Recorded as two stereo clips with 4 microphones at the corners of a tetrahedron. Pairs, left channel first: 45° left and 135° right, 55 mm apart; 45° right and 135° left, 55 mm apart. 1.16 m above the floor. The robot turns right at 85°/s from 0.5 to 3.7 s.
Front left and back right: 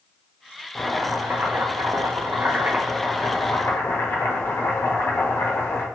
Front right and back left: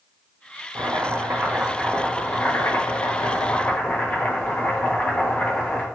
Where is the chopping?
125° left, 0.7 m; by 5.8 s 20° left, 0.7 m.